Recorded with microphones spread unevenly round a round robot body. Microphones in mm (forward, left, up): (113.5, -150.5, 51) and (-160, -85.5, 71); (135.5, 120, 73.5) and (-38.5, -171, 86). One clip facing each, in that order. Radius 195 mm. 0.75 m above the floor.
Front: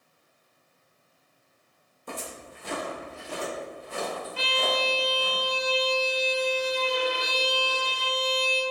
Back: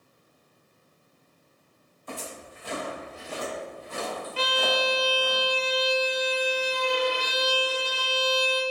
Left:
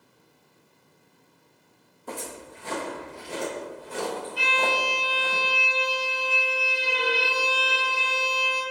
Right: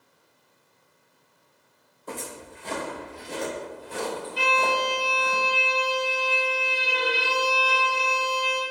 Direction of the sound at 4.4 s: 165° right.